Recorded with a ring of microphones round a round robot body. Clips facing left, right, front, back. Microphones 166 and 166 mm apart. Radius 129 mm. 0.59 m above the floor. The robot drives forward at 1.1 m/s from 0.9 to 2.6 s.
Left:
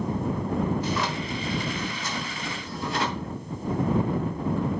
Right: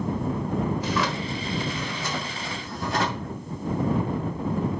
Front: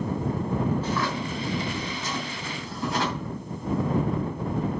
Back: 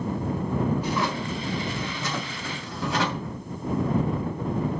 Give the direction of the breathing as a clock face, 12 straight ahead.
I don't hear breathing.